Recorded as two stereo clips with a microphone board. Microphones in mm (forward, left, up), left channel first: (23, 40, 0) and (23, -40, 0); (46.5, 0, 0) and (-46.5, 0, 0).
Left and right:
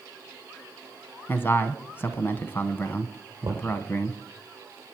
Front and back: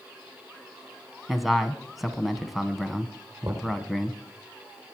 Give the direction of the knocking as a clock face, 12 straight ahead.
5 o'clock.